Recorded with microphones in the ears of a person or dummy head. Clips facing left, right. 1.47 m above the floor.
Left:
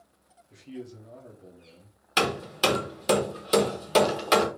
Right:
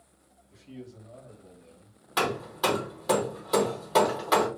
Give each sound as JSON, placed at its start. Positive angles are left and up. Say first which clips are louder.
{"t": 0.5, "sound": "a man speaking", "louder": "left 4 dB", "side_deg": 80, "distance_m": 1.4}
{"t": 2.2, "sound": "hammering", "louder": "left 2 dB", "side_deg": 35, "distance_m": 0.9}